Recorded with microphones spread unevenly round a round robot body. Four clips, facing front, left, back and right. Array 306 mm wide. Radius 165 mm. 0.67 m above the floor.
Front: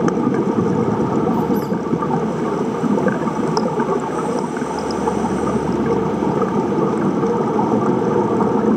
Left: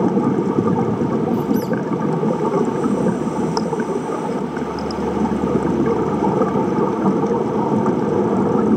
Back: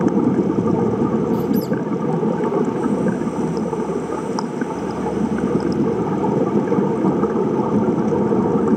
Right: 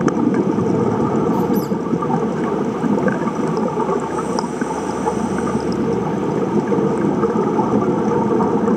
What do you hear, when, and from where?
1.3 s a squeak: 170° right, 0.9 m